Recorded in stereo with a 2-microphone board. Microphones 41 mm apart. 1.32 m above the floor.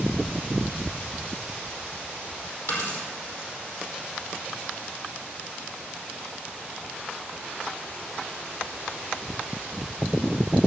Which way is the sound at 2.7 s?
75° left (ahead or behind).